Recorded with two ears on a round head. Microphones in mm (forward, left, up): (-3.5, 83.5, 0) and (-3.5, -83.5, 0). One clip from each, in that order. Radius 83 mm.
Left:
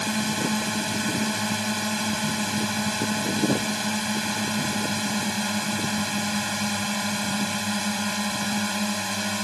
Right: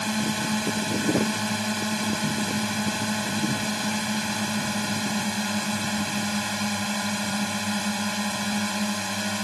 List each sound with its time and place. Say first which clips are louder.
0.0 s a drone: left 1 dB; 5° left (ahead or behind)